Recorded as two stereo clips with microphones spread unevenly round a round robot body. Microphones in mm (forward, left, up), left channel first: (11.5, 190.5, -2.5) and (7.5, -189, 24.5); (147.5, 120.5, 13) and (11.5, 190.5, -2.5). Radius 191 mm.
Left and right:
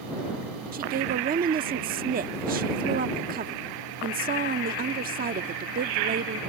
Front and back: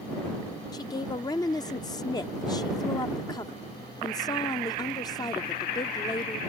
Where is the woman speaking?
55° right.